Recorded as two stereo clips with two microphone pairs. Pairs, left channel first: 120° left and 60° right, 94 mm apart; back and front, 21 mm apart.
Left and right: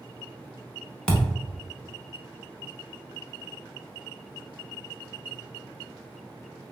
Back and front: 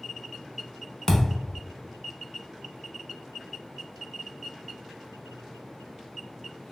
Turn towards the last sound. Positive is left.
turn(degrees=-175)